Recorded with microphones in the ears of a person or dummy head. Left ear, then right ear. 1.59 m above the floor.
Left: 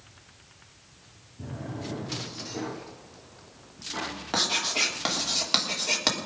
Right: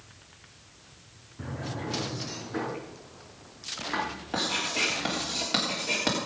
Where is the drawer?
55° right (ahead or behind), 6 m.